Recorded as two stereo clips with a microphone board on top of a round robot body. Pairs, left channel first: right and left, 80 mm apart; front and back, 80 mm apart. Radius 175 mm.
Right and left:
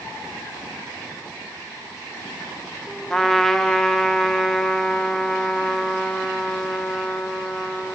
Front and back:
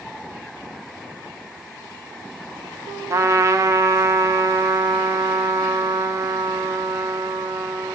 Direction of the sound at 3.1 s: 175° right.